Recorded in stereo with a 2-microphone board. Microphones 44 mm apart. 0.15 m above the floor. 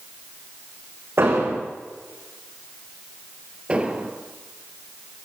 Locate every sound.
1.2 s an explosion: 65° right (ahead or behind), 7.5 m
3.7 s an explosion: 25° right (ahead or behind), 2.5 m